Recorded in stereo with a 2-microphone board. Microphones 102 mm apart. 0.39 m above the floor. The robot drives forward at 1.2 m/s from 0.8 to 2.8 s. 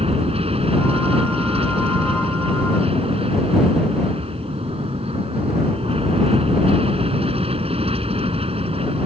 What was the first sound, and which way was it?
An aircraft, 75° right (ahead or behind).